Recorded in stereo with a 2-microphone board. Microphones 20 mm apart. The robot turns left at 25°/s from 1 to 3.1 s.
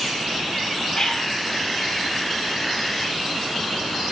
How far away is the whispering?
About 1.0 m.